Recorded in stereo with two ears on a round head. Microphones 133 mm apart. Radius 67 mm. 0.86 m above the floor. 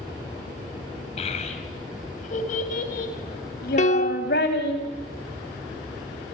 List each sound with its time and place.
1.2 s a child speaking: 45° left (ahead or behind), 4.5 m; by 4.8 s 75° left (ahead or behind), 4.5 m
3.8 s a piano: 50° left (ahead or behind), 0.8 m